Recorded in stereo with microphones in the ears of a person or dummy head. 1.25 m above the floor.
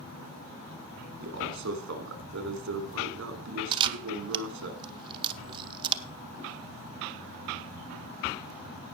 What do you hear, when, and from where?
1.2 s a man speaking: 65° right (ahead or behind), 3 m
3.7 s a camera shutter: 25° right (ahead or behind), 0.8 m